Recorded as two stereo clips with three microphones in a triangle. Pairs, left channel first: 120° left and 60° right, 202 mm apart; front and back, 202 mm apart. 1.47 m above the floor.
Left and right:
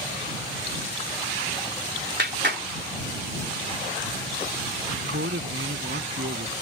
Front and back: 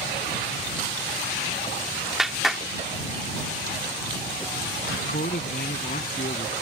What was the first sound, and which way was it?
A clap, 90° right.